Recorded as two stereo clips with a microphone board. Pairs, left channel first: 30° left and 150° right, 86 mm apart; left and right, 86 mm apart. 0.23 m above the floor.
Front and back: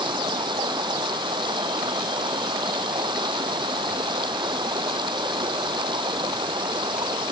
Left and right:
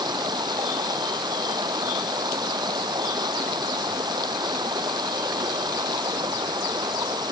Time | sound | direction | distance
0.0 | running water | 125° right | ?